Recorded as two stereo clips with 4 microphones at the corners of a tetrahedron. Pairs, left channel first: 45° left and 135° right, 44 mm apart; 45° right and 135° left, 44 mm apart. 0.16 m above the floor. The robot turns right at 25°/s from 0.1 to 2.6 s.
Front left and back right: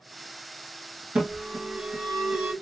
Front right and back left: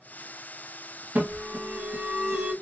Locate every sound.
1.1 s an alarm: 175° left, 1.8 m; by 2.5 s 150° right, 1.8 m